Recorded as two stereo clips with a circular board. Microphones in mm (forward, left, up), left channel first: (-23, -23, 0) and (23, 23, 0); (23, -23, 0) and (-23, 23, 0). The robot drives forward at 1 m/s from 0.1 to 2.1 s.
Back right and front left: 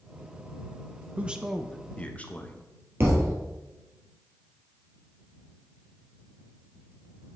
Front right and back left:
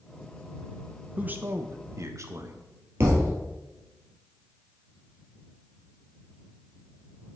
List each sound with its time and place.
1.2 s a man speaking: 85° left, 0.7 m; by 2.7 s 160° left, 1.1 m
3.0 s a thud: 90° left, 2.5 m